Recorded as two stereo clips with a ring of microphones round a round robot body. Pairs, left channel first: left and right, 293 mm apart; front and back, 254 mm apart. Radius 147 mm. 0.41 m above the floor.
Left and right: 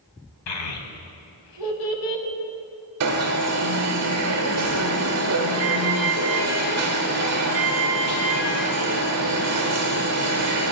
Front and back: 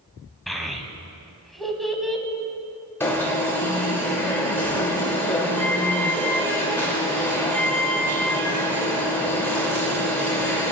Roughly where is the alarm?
Right.